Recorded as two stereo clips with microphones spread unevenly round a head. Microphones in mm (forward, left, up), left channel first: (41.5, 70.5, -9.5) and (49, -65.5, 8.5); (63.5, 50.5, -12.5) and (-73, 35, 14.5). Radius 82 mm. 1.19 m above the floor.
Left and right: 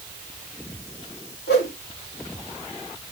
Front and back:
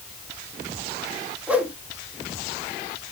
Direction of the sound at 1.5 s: 105° left.